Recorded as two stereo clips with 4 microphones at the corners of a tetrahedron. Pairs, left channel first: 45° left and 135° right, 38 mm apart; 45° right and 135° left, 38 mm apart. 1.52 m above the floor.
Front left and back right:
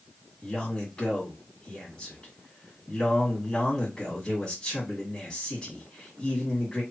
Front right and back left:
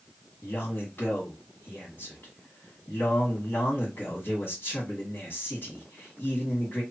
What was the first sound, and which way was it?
A man speaking, 15° right.